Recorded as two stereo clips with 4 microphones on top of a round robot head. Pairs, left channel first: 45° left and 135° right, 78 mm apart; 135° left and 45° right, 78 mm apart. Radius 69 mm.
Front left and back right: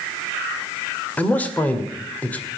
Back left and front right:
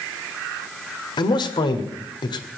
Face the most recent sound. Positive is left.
turn(degrees=115)